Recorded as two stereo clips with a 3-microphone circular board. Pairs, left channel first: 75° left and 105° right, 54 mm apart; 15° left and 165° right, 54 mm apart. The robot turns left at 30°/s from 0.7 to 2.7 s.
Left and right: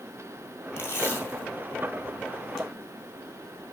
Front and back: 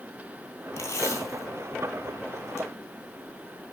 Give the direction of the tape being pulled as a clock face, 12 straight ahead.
11 o'clock.